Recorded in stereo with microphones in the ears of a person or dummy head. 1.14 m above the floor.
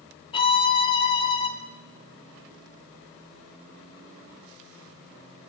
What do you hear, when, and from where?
0.3 s a violin: 30° left (ahead or behind), 1.0 m